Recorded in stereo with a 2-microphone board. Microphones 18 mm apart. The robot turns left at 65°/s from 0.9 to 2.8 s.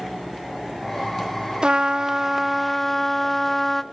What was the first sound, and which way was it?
A trumpet, 115° right.